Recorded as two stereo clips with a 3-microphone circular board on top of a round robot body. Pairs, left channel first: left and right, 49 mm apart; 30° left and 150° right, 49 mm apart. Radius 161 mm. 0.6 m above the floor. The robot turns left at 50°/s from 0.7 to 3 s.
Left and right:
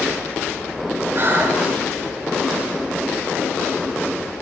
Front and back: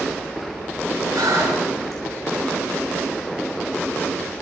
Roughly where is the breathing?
Behind right.